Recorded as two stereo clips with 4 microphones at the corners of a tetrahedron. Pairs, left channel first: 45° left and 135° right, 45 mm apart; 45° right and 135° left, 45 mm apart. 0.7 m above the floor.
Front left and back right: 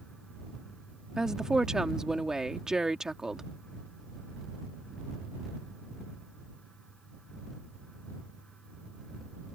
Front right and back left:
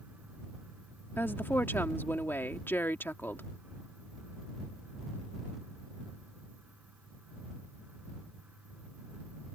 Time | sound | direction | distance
1.2 | a woman speaking | 60° right | ?